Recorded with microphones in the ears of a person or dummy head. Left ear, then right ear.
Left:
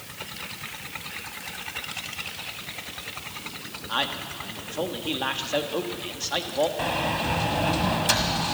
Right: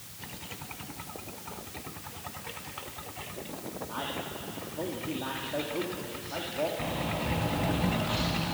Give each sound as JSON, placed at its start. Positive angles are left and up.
{"t": 3.9, "sound": "a man speaking", "side_deg": 70, "distance_m": 1.7}
{"t": 6.8, "sound": "a sliding door", "side_deg": 45, "distance_m": 1.8}